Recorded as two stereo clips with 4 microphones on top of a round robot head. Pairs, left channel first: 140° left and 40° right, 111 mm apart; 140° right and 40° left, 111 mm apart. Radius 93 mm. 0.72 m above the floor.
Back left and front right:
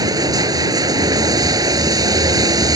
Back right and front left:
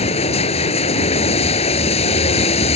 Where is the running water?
100° right.